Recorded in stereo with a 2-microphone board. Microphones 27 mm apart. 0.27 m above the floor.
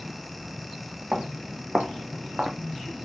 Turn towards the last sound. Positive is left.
turn(degrees=-40)  # may be behind; listen again after turning